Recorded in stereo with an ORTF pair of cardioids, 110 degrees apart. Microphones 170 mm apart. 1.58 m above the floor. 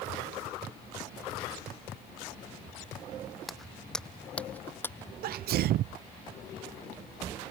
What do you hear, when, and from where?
3.5 s footsteps: straight ahead; by 5.1 s 15° left
5.2 s a sneeze: 65° right